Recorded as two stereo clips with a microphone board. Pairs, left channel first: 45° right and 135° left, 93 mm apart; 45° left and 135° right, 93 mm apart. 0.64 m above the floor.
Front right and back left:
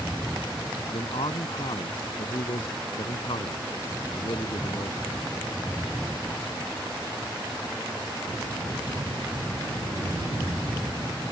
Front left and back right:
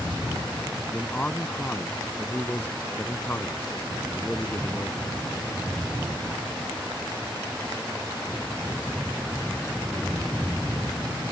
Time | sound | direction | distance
0.9 | a man speaking | 30° right | ?